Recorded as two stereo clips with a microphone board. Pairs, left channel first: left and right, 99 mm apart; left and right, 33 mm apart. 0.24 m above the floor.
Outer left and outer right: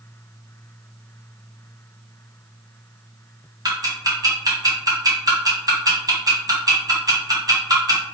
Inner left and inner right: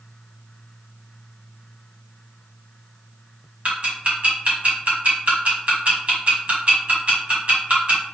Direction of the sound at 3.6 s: 45° right (ahead or behind).